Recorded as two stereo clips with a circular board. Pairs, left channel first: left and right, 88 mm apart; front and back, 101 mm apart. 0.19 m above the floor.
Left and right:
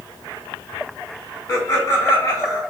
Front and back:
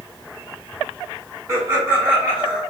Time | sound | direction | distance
1.5 | laughter | 135° left | 1.8 m